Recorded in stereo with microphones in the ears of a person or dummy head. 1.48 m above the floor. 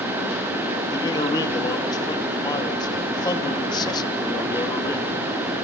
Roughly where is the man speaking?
Left.